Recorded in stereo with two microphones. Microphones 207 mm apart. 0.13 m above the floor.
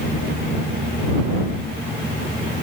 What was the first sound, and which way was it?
Only background noise.